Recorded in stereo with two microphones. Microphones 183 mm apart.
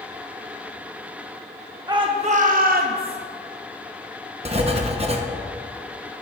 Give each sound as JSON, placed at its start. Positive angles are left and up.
{"t": 1.9, "sound": "a shout", "side_deg": -20, "distance_m": 0.7}
{"t": 4.5, "sound": "writing", "side_deg": -35, "distance_m": 0.9}